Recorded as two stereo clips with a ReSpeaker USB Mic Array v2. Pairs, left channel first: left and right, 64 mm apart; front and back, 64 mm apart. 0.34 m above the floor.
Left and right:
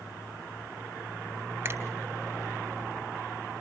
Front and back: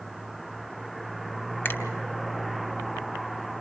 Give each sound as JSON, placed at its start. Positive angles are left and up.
{"t": 1.6, "sound": "a finger snap", "azimuth_deg": -45, "distance_m": 2.0}